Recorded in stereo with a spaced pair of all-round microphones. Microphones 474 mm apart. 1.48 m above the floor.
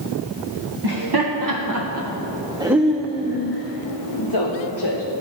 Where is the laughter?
55° right (ahead or behind), 1.5 m; by 5.0 s 60° left (ahead or behind), 1.6 m.